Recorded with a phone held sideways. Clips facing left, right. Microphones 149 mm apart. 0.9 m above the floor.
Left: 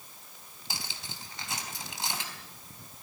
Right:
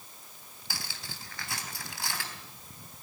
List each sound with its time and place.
0.7 s cutlery clinking: 20° left (ahead or behind), 3.5 m